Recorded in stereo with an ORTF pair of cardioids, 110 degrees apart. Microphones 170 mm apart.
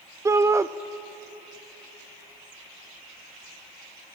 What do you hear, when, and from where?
0.2 s a shout: 20° right, 0.5 m